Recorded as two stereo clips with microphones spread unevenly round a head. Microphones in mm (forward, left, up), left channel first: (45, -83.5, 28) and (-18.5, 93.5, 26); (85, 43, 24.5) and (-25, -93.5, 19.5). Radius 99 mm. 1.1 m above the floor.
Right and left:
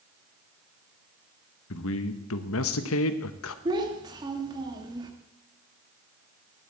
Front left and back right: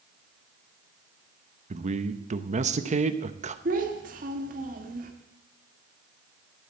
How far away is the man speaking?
About 1.1 m.